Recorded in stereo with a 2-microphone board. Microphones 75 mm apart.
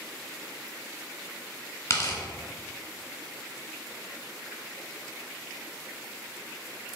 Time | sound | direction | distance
1.9 | tearing paper | 40° left (ahead or behind) | 1.7 m